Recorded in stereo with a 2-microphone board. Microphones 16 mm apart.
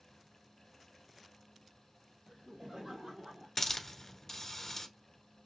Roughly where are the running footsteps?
I don't hear running footsteps.